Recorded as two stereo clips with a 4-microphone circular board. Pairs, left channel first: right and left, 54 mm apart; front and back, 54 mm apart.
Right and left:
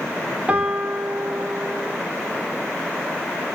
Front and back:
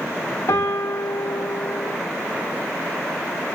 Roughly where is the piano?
Ahead left.